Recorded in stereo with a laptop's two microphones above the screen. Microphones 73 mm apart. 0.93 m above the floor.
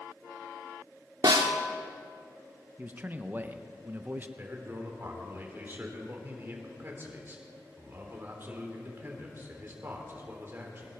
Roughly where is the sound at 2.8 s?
Right.